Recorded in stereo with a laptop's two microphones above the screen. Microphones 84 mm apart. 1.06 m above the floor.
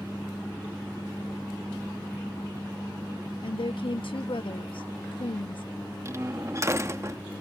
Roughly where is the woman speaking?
Left.